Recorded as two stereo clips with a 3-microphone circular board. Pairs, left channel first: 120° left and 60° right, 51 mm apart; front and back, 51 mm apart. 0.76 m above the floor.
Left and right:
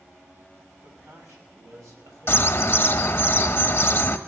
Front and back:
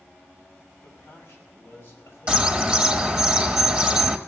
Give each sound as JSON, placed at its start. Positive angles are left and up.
{"t": 0.8, "sound": "a man speaking", "azimuth_deg": -50, "distance_m": 4.5}
{"t": 2.3, "sound": "a bird", "azimuth_deg": 115, "distance_m": 1.1}